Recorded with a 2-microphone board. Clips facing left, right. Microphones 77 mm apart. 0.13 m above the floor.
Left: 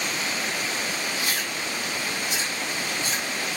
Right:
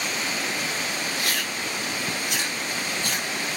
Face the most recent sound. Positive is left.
turn(degrees=-60)  # may be behind; listen again after turning